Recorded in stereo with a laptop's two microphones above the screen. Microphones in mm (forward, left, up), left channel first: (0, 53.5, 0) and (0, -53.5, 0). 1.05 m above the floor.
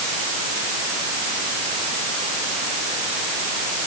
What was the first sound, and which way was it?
Only background noise.